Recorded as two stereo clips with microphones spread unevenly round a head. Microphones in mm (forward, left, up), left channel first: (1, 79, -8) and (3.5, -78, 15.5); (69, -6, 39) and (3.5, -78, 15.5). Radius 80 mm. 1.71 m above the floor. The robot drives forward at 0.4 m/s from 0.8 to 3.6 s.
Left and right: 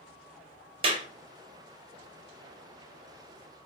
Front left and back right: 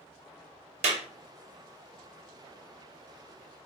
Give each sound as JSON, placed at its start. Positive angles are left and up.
{"t": 0.8, "sound": "a clap", "azimuth_deg": -135, "distance_m": 1.2}